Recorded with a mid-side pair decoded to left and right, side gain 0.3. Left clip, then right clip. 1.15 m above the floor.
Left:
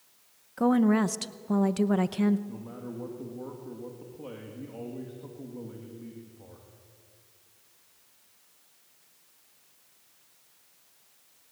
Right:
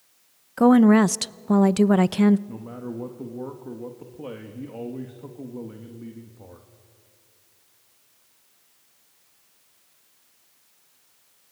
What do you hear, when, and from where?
0.6 s a woman speaking: 70° right, 0.6 m
2.5 s a man speaking: 60° right, 2 m